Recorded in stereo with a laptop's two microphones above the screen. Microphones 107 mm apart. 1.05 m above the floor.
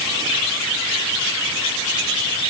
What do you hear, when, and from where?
Only background noise.